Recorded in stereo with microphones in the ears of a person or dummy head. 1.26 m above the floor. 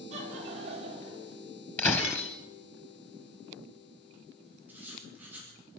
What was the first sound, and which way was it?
Laughter, 45° right (ahead or behind).